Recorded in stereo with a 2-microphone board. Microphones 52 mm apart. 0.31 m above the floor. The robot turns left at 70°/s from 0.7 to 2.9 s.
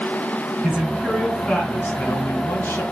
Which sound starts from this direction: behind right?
A man speaking, at 0.6 s.